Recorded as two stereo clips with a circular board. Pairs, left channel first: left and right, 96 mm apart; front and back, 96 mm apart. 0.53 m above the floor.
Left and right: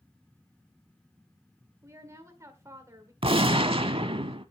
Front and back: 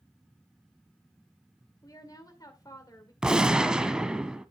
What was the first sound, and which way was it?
A woman speaking, 40° right.